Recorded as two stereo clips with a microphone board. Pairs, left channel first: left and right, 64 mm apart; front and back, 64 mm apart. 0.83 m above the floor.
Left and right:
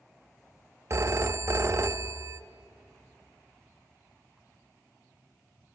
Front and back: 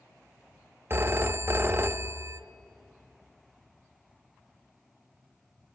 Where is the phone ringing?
130° right, 0.6 m.